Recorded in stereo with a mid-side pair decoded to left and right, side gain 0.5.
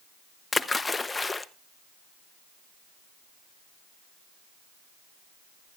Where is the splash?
20° left, 0.7 m.